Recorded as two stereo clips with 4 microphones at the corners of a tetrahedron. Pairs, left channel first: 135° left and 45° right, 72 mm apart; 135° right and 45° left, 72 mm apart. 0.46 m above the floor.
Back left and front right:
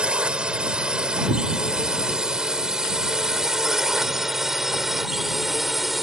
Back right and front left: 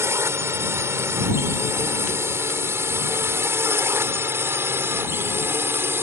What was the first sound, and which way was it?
A drone, 25° left.